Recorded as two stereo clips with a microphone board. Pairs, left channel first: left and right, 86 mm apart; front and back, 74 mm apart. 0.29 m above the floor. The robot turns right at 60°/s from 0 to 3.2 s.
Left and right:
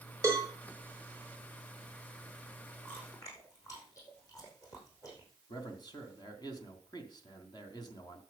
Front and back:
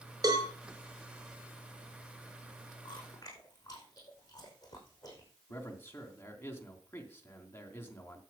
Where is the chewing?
20° left, 5.5 m; by 5.3 s 40° left, 5.5 m.